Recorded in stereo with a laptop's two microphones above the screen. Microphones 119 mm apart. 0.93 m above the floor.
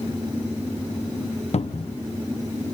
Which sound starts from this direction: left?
A cupboard door, at 1.5 s.